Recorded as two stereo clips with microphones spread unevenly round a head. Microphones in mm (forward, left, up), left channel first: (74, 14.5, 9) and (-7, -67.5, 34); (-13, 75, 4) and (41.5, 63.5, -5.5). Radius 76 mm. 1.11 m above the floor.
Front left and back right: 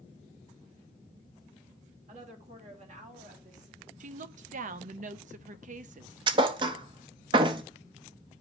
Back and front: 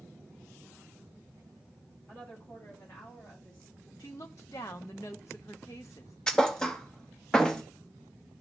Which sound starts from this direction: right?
A woman speaking, at 2.1 s.